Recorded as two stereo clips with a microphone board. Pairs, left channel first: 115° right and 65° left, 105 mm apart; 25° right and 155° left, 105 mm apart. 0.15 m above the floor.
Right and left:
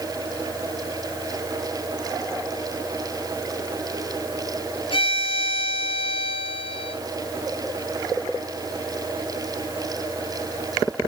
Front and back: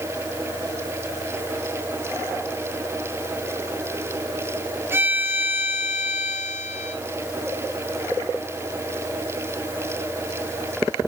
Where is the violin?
135° right, 0.9 m.